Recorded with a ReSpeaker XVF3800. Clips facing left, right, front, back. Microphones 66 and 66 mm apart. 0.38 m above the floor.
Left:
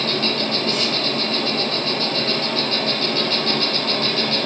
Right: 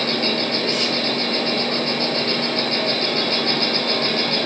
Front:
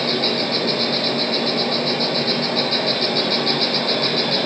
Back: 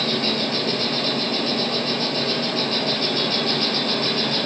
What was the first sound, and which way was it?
An insect, 30° right.